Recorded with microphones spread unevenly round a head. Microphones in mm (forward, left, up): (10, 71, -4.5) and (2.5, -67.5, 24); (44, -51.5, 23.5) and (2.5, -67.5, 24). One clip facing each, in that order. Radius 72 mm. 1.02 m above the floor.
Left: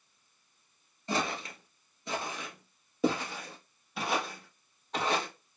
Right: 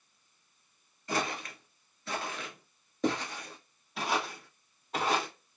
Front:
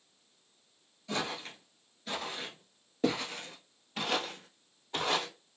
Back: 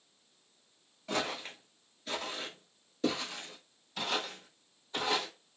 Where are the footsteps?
150° left, 1.1 m; by 5.3 s 15° right, 1.9 m.